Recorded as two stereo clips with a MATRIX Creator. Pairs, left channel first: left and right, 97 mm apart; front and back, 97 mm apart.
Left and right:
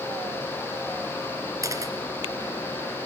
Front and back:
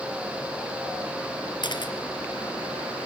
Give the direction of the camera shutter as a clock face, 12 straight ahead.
1 o'clock.